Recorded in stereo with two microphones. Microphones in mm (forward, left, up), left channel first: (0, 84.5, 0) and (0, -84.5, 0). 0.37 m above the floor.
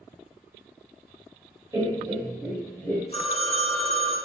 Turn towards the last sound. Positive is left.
turn(degrees=40)  # may be behind; listen again after turning